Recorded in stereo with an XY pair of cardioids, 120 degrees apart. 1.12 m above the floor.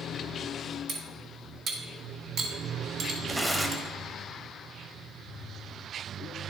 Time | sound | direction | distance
0.9 | cutlery clinking | 55° right | 1.9 m
3.3 | tearing paper | 10° right | 1.1 m